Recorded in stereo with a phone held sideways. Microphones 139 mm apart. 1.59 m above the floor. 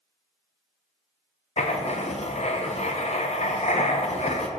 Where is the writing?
55° left (ahead or behind), 0.6 m.